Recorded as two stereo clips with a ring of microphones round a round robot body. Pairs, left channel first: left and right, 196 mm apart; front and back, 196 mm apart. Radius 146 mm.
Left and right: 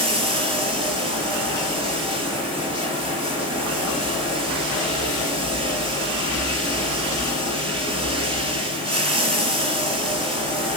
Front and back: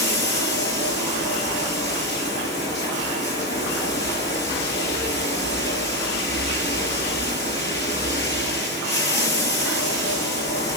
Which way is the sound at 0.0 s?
25° right.